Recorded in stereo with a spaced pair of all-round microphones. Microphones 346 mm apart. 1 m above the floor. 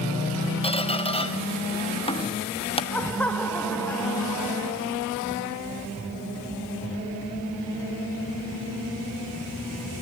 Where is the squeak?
15° left (ahead or behind), 1.0 m.